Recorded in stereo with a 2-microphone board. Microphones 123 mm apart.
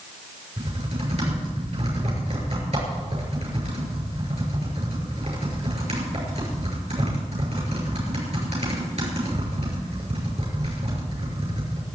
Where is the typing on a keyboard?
60° right (ahead or behind), 7.5 m.